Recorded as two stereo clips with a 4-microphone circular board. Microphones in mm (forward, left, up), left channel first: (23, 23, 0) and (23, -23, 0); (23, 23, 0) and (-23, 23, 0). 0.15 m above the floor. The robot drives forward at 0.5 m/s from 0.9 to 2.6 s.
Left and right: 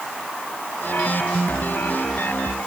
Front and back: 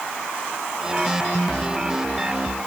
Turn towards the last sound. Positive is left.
No sound to turn to.